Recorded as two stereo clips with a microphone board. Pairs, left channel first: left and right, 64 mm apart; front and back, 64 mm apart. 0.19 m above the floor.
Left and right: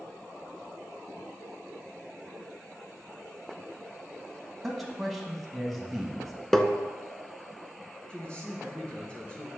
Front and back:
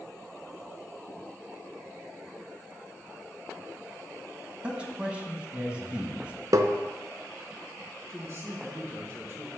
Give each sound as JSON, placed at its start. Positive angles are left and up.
{"t": 4.6, "sound": "a man speaking", "azimuth_deg": 180, "distance_m": 1.2}
{"t": 6.5, "sound": "tapping", "azimuth_deg": 175, "distance_m": 0.6}
{"t": 8.1, "sound": "a man speaking", "azimuth_deg": 155, "distance_m": 2.5}